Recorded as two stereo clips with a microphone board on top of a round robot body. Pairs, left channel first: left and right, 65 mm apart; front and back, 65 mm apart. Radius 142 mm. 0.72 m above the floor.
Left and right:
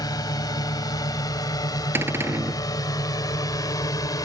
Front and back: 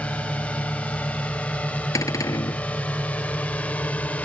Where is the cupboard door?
35° right.